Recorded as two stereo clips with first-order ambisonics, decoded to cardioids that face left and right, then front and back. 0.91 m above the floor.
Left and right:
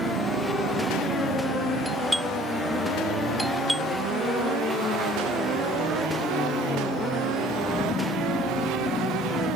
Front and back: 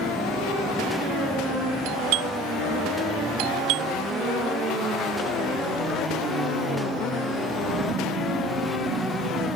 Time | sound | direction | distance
1.9 | a doorbell | straight behind | ?